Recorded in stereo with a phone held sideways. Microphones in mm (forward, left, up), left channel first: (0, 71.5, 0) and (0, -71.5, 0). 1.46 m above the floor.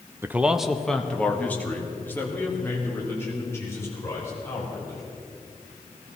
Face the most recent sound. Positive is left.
turn(degrees=20)  # may be behind; listen again after turning